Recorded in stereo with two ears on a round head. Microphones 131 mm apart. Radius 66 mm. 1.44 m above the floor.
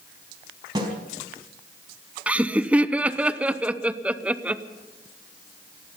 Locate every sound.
0.8 s a snare drum: 30° right (ahead or behind), 4.5 m
2.3 s laughter: 10° right (ahead or behind), 0.8 m